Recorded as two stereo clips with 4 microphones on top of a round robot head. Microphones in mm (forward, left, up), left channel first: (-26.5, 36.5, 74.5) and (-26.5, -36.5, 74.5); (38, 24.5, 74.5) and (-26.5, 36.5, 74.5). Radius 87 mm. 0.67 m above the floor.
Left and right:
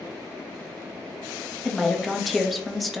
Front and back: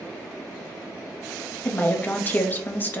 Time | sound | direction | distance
1.6 | a woman speaking | straight ahead | 0.6 m